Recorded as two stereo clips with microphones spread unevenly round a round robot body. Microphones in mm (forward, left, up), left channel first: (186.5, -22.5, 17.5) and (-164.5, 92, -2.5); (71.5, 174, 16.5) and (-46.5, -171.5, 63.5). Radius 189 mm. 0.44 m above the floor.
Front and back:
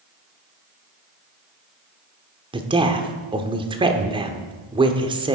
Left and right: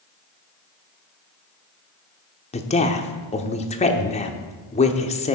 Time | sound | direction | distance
2.5 | a woman speaking | 105° left | 1.0 m